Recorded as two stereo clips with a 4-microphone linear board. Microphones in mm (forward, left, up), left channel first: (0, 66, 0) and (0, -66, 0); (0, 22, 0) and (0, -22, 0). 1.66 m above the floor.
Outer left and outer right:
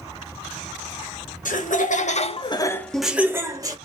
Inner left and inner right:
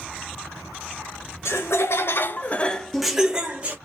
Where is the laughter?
85° left, 1.0 m; by 3.8 s 30° right (ahead or behind), 0.9 m.